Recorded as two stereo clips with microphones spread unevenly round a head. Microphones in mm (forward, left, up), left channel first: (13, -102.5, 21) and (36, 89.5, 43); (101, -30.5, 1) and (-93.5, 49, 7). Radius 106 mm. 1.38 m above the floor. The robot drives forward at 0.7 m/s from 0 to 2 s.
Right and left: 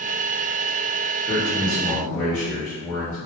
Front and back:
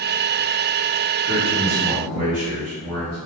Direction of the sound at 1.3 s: Straight behind.